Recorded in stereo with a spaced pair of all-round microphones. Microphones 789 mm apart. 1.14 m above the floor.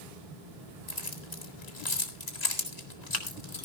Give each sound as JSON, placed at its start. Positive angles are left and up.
{"t": 0.9, "sound": "keys jangling", "side_deg": 55, "distance_m": 2.0}